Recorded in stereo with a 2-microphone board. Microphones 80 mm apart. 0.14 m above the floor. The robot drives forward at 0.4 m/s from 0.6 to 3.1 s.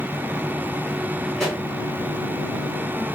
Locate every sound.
1.4 s a pop: 5° left (ahead or behind), 1.7 m